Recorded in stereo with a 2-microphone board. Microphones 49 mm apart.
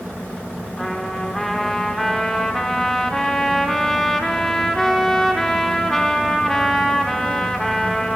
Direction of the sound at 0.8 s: 10° left (ahead or behind).